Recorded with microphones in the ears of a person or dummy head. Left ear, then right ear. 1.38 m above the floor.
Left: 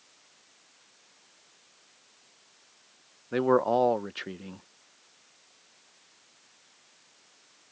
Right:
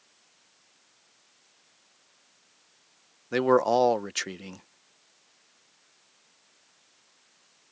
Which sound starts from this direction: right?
A man speaking, at 3.3 s.